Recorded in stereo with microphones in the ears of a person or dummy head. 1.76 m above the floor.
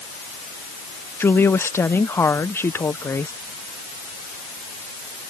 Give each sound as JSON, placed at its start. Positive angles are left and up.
{"t": 1.2, "sound": "a woman speaking", "side_deg": 10}